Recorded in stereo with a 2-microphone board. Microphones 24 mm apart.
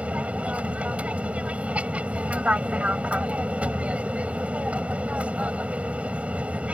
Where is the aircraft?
60° right (ahead or behind).